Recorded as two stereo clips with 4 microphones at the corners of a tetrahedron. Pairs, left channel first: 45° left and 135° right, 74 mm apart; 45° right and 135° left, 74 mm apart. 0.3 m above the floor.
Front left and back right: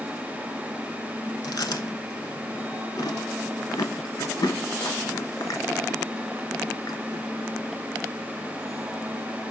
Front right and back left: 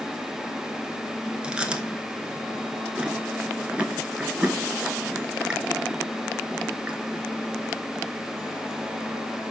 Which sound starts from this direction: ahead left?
Chewing, at 1.4 s.